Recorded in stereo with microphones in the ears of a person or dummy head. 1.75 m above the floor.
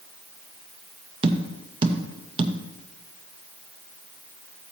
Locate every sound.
1.2 s tapping: 25° right (ahead or behind), 0.8 m